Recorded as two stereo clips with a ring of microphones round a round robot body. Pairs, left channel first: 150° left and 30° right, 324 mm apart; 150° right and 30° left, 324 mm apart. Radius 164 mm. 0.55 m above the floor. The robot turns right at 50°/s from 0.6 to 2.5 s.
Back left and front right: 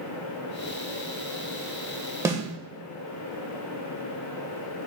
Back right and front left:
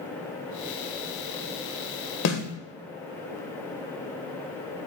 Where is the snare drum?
110° right, 1.7 m; by 2.4 s 105° right, 1.7 m.